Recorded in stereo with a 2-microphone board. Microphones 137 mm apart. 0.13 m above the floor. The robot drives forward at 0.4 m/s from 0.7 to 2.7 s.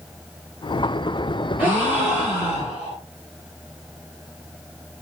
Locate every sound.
1.6 s a gasp: 15° right (ahead or behind), 2.5 m; by 3.0 s 10° right (ahead or behind), 3 m